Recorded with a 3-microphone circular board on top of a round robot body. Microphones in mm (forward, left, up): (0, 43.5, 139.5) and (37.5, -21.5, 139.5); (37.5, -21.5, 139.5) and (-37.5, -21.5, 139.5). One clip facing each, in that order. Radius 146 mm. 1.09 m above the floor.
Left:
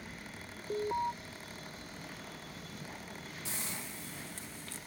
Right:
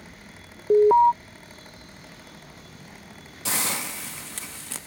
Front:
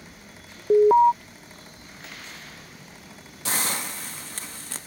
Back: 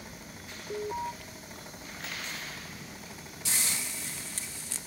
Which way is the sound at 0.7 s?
30° right.